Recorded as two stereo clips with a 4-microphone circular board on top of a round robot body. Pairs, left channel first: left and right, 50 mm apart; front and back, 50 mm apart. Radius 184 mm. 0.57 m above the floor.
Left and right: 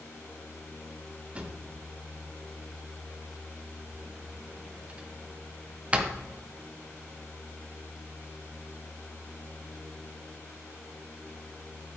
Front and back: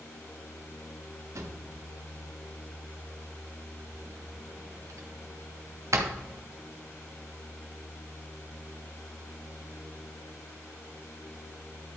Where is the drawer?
160° right, 1.0 m.